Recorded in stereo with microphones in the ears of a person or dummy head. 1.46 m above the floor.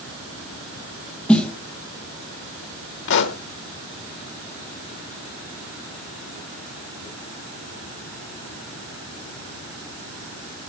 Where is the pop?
65° left (ahead or behind), 1.0 m.